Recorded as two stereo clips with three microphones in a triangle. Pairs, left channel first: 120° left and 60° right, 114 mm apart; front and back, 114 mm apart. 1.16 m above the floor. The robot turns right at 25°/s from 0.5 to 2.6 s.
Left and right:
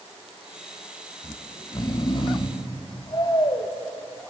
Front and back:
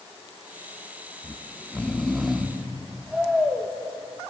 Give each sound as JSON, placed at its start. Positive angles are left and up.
{"t": 1.2, "sound": "snoring", "azimuth_deg": 65, "distance_m": 0.8}